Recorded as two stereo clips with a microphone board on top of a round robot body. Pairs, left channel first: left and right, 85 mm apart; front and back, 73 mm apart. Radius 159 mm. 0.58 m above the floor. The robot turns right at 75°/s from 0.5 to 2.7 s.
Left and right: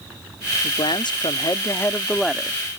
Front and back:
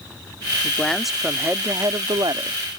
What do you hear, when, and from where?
0.6 s a man speaking: 60° left; by 2.6 s 155° right